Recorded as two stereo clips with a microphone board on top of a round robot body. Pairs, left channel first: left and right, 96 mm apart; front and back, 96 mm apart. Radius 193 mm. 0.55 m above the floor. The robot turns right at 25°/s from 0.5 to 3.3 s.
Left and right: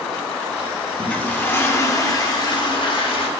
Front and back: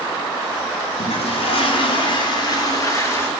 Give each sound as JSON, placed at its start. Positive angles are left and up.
{"t": 1.0, "sound": "a toilet flushing", "azimuth_deg": 10, "distance_m": 0.8}